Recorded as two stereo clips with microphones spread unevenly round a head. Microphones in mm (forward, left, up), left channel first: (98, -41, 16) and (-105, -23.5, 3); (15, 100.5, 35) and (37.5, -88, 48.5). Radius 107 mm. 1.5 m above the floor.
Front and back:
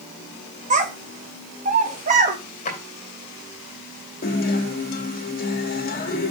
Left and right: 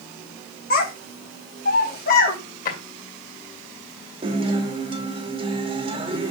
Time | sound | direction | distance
0.7 | a child speaking | 130° left | 1.0 m
2.6 | a drawer | 50° left | 2 m
4.2 | a guitar | 30° right | 1.4 m